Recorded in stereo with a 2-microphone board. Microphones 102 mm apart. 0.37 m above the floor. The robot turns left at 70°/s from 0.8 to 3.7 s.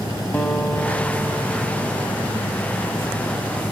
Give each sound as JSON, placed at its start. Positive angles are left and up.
{"t": 0.3, "sound": "a guitar", "azimuth_deg": 20, "distance_m": 1.7}